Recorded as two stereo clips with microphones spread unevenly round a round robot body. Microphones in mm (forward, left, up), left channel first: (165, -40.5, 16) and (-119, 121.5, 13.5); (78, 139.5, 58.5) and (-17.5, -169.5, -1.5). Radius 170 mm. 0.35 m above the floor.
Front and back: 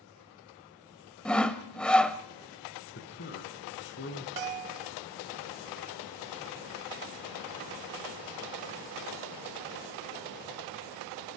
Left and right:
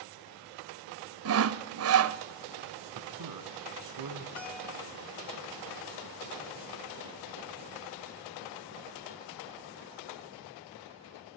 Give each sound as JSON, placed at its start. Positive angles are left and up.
{"t": 1.2, "sound": "sawing", "azimuth_deg": -115, "distance_m": 0.9}
{"t": 3.0, "sound": "a man speaking", "azimuth_deg": -90, "distance_m": 4.0}
{"t": 4.4, "sound": "a bell", "azimuth_deg": 160, "distance_m": 0.8}